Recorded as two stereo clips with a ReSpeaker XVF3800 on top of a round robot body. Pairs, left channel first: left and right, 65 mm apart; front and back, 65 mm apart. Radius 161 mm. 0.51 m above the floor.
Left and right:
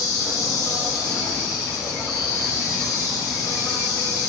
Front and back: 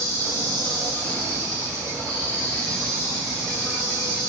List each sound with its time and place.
0.0 s an insect: 65° left, 3.5 m